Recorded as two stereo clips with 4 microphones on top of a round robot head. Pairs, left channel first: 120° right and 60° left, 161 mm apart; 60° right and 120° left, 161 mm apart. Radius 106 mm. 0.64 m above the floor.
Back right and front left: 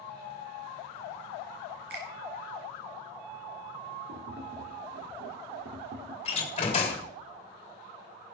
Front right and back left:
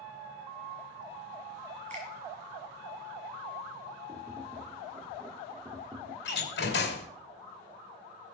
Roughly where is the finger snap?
Left.